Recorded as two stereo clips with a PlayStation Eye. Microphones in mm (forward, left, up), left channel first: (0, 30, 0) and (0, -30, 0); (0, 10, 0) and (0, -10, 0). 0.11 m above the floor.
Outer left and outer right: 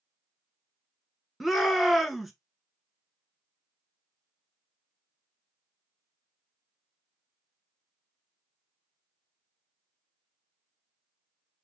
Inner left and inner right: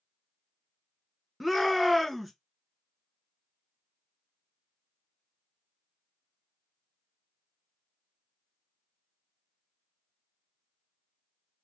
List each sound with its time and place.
1.4 s a shout: centre (ahead or behind), 1.1 m